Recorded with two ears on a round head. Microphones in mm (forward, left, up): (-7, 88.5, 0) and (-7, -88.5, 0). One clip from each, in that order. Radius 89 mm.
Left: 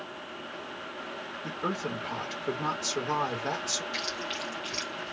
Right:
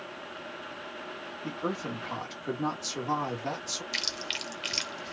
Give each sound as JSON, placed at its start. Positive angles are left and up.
{"t": 1.4, "sound": "a woman speaking", "side_deg": 0, "distance_m": 1.5}
{"t": 3.9, "sound": "chewing", "side_deg": -50, "distance_m": 1.2}